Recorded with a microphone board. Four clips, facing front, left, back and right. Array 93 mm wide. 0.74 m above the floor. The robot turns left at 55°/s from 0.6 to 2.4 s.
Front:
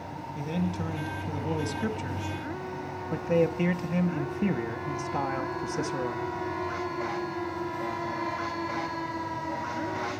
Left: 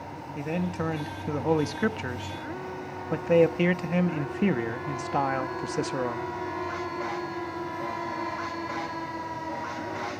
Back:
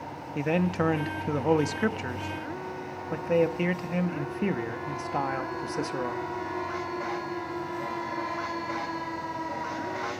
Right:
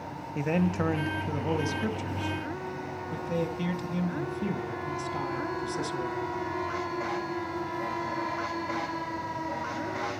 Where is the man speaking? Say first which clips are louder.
Right 3 dB, back 6 dB; 160° right, 0.6 m; by 6.3 s 100° left, 0.6 m.